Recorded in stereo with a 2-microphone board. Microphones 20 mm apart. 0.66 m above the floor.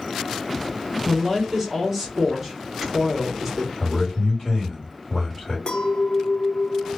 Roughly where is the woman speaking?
Centre.